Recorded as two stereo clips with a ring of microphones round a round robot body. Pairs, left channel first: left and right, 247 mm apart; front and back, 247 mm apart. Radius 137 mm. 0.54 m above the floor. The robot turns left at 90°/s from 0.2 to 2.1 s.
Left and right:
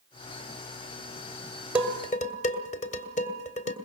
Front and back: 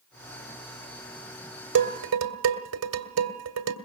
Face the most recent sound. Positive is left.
turn(degrees=155)